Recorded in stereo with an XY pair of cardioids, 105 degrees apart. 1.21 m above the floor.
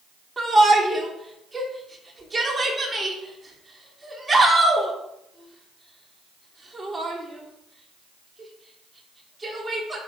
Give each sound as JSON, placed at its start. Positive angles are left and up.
{"t": 0.4, "sound": "a shout", "azimuth_deg": -25, "distance_m": 3.5}